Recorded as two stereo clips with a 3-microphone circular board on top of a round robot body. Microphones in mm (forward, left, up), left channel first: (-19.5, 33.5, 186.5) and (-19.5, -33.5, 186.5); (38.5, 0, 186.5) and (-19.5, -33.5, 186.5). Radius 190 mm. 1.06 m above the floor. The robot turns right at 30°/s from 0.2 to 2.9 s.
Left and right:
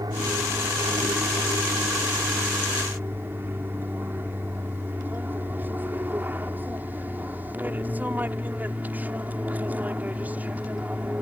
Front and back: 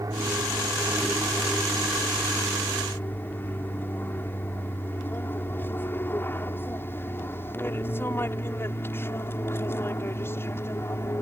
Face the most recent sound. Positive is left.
turn(degrees=-20)